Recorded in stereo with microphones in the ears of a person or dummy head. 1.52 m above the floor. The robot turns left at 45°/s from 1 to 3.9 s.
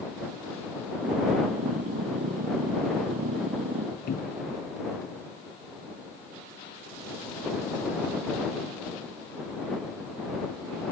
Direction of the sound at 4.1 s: 50° left (ahead or behind).